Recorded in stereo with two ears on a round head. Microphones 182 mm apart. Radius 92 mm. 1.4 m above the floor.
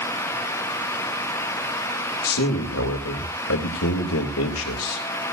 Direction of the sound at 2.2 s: 85° left.